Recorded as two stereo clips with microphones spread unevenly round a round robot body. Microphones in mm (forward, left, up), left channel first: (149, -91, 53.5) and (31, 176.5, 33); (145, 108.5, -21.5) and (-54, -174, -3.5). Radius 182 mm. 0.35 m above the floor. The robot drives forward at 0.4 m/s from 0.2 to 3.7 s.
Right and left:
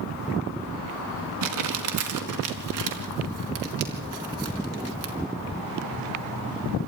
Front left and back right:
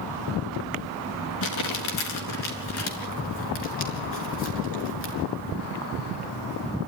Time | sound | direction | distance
1.4 | crumpling | 100° left | 3.5 m